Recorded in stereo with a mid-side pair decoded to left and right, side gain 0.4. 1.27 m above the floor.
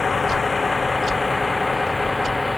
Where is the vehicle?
35° left; by 2.6 s 15° left.